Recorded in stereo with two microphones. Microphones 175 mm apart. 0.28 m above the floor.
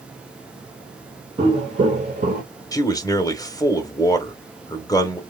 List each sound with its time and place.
1.4 s footsteps: 30° right (ahead or behind), 2.0 m; by 2.4 s 50° right (ahead or behind), 1.4 m
2.7 s a man speaking: 20° left (ahead or behind), 1.0 m